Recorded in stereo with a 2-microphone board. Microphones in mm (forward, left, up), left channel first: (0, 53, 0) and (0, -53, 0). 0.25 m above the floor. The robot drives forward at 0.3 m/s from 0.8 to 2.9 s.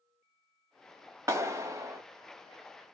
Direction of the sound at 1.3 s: 25° right (ahead or behind).